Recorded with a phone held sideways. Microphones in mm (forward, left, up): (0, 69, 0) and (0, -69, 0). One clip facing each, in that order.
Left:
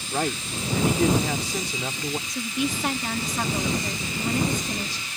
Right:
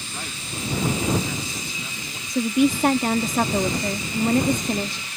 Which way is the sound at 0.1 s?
75° left (ahead or behind).